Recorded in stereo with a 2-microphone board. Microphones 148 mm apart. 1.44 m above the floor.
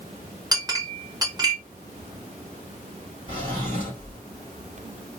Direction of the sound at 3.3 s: 45° right (ahead or behind).